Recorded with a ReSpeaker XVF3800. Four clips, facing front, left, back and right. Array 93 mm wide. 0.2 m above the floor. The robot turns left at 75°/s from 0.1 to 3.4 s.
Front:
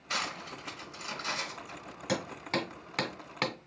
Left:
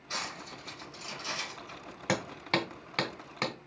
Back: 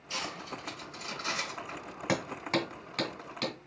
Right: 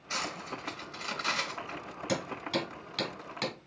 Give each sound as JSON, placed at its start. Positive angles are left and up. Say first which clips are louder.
{"t": 0.1, "sound": "cutlery clinking", "louder": "right 3 dB, front 2 dB", "azimuth_deg": -5, "distance_m": 1.1}
{"t": 2.1, "sound": "hammering", "louder": "left 2 dB, back 2 dB", "azimuth_deg": 130, "distance_m": 1.0}